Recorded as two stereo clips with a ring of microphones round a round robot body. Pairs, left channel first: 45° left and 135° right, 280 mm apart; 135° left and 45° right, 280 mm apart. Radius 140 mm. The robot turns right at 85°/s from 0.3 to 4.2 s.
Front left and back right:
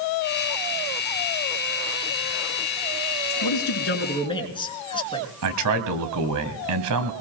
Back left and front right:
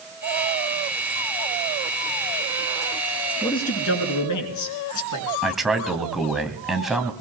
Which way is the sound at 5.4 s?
135° right.